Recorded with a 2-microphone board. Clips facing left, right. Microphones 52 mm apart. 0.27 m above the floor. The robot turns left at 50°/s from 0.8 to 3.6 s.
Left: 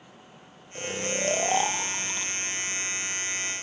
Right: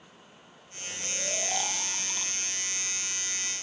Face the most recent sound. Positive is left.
turn(degrees=-65)